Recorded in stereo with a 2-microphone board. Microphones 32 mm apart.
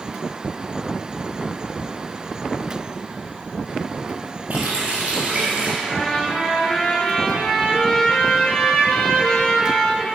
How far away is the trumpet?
About 1.2 m.